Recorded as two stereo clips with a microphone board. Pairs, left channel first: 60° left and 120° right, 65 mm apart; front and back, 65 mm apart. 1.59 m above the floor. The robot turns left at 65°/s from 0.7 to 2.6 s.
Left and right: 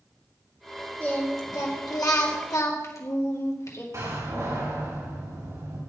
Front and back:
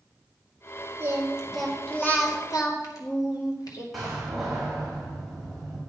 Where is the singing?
130° left, 2 m; by 3.8 s 25° left, 2 m.